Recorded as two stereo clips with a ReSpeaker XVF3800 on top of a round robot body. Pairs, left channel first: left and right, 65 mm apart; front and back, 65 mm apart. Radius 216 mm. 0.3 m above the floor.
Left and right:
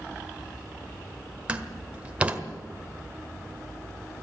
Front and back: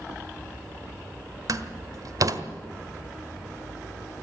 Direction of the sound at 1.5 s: 160° right.